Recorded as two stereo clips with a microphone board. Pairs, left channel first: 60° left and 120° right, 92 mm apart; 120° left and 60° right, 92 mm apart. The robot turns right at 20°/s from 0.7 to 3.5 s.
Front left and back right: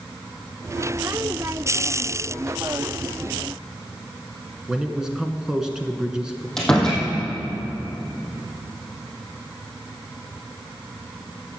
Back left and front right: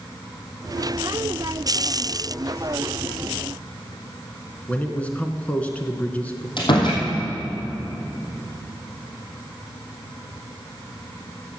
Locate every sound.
4.7 s a man speaking: 170° left, 1.1 m
6.6 s a door slam: 145° left, 3.5 m